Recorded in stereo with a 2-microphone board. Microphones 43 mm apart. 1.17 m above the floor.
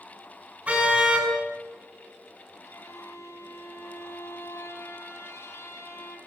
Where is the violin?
80° left, 4 m.